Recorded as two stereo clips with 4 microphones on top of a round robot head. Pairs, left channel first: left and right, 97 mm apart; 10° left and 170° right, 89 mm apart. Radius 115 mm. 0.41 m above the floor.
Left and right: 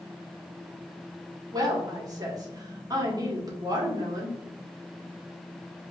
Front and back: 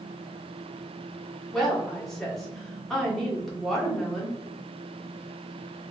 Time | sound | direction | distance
1.5 | a woman speaking | 75° right | 1.4 m